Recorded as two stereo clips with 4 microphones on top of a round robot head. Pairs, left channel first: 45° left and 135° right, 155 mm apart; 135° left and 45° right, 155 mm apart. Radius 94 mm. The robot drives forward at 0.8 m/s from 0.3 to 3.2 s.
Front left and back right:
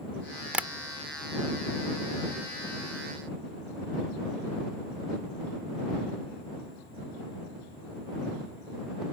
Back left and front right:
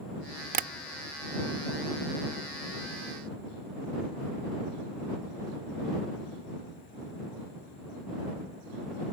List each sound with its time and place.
0.5 s tapping: 50° right; by 0.7 s 65° right